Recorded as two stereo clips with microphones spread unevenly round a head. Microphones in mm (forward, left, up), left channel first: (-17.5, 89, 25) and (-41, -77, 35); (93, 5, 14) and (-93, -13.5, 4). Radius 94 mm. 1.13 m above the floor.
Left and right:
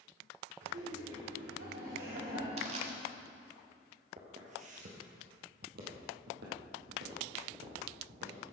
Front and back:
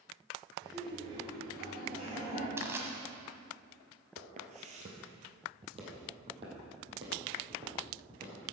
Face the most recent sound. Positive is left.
turn(degrees=-105)